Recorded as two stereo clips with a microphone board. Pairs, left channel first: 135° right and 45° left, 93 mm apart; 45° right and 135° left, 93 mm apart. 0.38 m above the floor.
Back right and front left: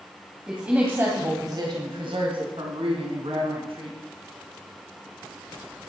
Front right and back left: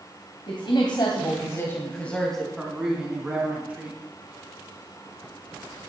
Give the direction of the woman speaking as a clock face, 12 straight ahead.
1 o'clock.